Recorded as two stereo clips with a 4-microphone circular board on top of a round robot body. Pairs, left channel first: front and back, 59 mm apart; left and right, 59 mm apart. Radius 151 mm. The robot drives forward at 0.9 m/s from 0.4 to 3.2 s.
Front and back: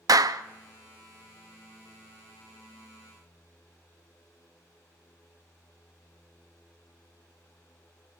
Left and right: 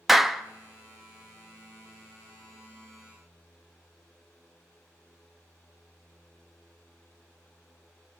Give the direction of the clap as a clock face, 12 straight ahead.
6 o'clock.